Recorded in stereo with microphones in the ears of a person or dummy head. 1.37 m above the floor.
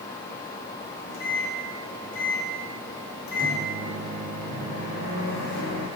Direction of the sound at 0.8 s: 75° left (ahead or behind).